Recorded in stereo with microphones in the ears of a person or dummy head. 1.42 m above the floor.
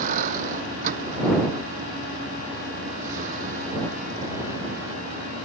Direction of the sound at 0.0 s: 35° right (ahead or behind).